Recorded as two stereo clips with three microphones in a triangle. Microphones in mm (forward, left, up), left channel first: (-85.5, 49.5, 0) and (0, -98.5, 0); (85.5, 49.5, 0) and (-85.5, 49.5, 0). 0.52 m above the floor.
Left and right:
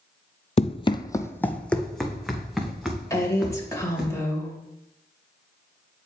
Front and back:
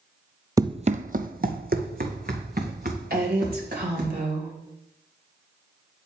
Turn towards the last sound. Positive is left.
turn(degrees=-170)